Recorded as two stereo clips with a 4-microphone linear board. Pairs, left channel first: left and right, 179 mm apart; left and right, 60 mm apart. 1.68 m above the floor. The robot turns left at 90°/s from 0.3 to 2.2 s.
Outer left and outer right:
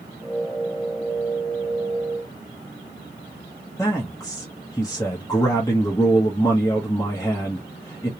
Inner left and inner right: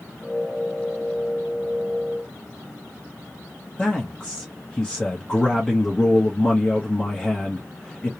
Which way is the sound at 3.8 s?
20° left (ahead or behind).